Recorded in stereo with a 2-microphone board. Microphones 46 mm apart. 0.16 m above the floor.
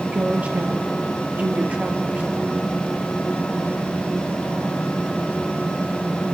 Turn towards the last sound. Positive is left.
turn(degrees=-35)  # may be behind; listen again after turning